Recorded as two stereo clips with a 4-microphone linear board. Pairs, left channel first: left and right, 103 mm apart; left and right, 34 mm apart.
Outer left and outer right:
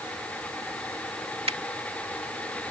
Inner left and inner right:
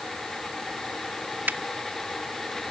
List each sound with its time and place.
1.5 s a finger snap: 75° right (ahead or behind)